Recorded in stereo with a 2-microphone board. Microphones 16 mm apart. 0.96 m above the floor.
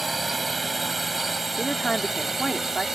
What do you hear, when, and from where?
0.0 s a drone: 20° right (ahead or behind); by 3.0 s 30° right (ahead or behind)
1.6 s a woman speaking: 45° left (ahead or behind)